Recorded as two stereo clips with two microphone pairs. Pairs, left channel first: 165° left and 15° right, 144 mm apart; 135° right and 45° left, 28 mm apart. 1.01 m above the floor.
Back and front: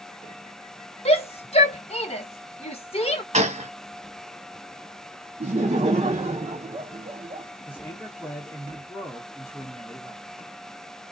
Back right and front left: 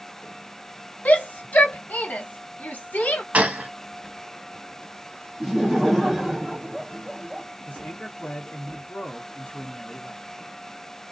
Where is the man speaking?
120° right, 1.0 m.